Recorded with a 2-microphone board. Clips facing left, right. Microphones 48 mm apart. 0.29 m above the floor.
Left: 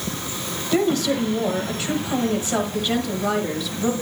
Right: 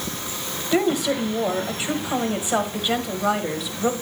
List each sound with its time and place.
0.7 s a woman speaking: 20° right (ahead or behind), 1.4 m